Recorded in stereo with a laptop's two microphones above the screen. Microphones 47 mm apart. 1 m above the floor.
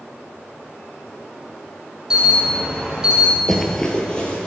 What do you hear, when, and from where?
2.1 s an alarm: 15° right (ahead or behind), 2.5 m
3.5 s running footsteps: 5° left (ahead or behind), 1.0 m; by 4.5 s 20° left (ahead or behind), 1.6 m